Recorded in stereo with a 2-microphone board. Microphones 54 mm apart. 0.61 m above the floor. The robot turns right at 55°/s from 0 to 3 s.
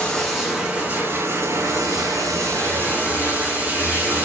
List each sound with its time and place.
0.0 s running water: 160° left, 2.5 m; by 4.2 s 35° right, 2.5 m